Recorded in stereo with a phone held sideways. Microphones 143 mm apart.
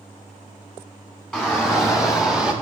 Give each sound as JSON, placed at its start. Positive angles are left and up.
{"t": 1.3, "sound": "a shout", "side_deg": -5, "distance_m": 2.5}